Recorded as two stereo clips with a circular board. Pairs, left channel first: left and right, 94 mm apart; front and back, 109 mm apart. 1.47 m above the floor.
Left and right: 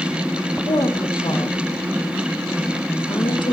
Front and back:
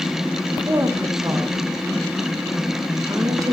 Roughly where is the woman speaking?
Behind left.